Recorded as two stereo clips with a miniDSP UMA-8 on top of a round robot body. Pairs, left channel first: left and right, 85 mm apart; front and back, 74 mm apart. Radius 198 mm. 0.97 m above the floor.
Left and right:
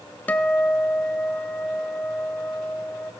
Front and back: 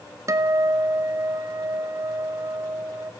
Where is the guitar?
155° left, 0.9 m.